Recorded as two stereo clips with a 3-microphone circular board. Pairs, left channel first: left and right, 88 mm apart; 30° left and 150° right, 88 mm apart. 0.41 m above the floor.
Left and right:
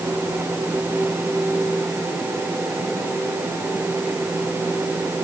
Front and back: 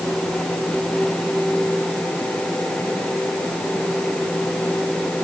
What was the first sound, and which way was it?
Only background noise.